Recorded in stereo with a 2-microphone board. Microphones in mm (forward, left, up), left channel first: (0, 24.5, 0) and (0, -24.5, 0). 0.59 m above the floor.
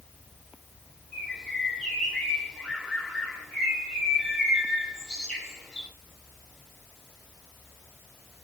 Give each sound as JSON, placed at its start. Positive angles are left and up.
{"t": 1.1, "sound": "a bird", "side_deg": 5, "distance_m": 2.0}